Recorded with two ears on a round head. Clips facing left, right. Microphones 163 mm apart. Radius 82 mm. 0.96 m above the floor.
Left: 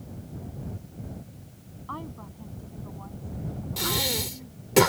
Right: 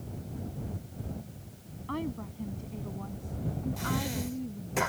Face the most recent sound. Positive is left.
turn(degrees=85)